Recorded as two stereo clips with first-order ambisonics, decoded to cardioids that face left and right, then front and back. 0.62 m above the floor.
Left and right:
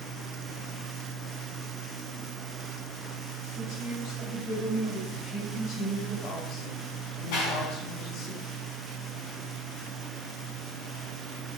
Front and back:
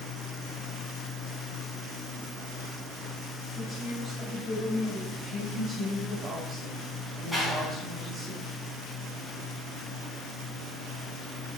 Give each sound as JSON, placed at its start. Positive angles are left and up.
{"t": 3.5, "sound": "a woman speaking", "azimuth_deg": 80, "distance_m": 4.0}
{"t": 5.1, "sound": "a woman speaking", "azimuth_deg": 130, "distance_m": 4.5}
{"t": 7.3, "sound": "a clap", "azimuth_deg": 90, "distance_m": 5.0}